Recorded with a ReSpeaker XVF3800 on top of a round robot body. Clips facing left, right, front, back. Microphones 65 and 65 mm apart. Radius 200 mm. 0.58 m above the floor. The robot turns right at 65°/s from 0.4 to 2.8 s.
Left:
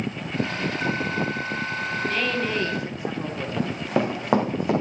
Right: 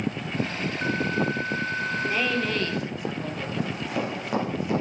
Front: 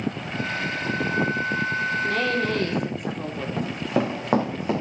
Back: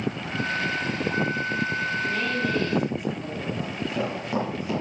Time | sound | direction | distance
2.0 | a woman speaking | 20° right | 2.5 m
3.6 | running footsteps | 35° left | 3 m